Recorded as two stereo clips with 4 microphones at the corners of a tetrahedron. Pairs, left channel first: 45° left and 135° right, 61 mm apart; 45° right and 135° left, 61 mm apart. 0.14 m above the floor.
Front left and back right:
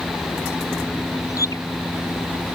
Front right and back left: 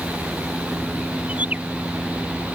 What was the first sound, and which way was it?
A bird, 70° left.